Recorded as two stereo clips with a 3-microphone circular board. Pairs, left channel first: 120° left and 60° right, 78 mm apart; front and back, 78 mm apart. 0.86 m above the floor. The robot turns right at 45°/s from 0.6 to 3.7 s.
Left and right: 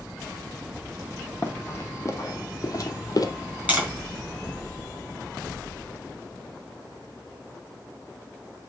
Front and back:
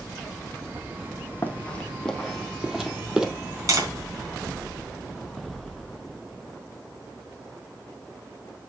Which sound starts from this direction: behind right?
Tapping, at 3.7 s.